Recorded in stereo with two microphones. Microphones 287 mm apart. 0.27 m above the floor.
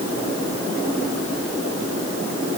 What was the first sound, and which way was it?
Only background noise.